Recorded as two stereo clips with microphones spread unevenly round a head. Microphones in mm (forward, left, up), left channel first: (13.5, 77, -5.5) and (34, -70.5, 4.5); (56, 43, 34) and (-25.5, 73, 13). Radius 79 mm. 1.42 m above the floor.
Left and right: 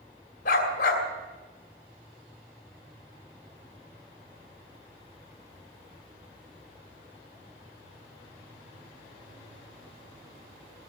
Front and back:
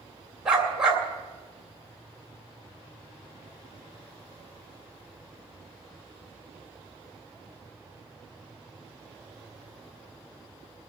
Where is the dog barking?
70° left, 2.5 m.